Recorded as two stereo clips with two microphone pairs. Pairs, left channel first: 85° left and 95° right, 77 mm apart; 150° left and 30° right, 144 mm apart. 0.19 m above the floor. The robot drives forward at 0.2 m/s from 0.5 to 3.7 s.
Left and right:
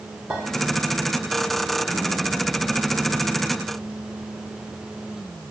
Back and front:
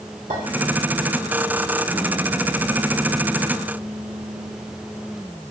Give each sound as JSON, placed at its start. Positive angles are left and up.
{"t": 0.3, "sound": "a clink", "azimuth_deg": -35, "distance_m": 1.6}